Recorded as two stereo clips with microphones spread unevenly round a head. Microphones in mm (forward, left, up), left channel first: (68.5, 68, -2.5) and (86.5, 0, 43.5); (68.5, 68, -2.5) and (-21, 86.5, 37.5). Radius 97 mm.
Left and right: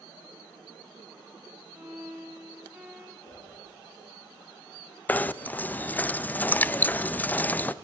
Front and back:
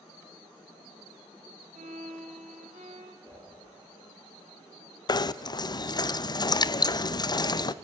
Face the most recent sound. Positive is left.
turn(degrees=35)